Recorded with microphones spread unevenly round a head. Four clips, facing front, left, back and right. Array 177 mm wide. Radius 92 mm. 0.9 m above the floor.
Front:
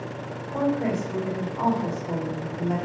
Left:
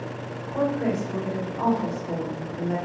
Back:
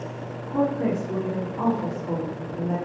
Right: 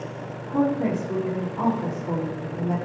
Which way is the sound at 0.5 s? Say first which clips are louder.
Right 2 dB, back 1 dB; 120° right.